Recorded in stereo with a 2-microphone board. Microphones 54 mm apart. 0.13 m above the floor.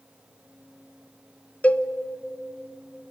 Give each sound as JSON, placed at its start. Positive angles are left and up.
{"t": 1.6, "sound": "a cowbell", "side_deg": 25, "distance_m": 0.6}